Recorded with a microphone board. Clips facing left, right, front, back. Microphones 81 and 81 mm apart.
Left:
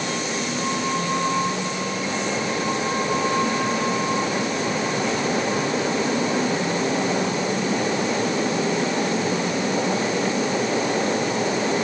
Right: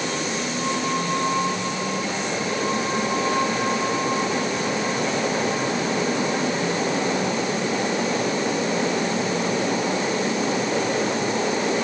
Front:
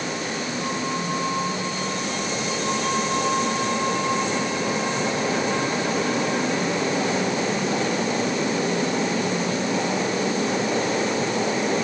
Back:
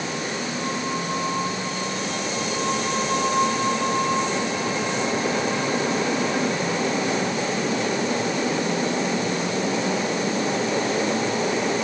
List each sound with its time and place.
Only background noise.